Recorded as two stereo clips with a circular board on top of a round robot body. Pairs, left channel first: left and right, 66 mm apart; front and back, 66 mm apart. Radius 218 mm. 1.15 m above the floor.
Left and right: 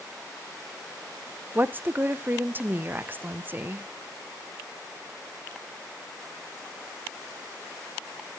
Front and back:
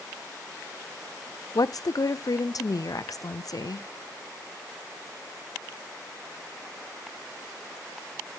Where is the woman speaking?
30° right, 0.5 m.